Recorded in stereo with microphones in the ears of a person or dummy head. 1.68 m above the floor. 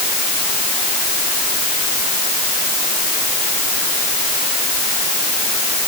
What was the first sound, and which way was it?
Only background noise.